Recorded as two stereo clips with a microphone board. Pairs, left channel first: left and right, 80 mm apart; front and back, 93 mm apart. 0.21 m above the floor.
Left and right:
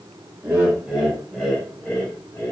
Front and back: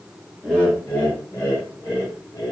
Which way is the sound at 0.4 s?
60° right.